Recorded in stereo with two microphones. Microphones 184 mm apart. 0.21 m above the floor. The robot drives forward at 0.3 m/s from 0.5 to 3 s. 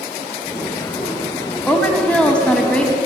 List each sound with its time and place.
1.7 s a woman speaking: 10° left (ahead or behind), 1.2 m; by 3.0 s 5° left (ahead or behind), 1.3 m